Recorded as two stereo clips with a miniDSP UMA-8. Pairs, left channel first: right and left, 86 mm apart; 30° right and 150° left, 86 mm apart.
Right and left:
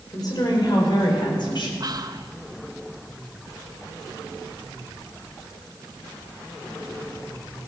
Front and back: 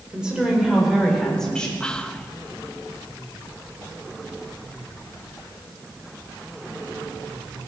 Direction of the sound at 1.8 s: 50° left.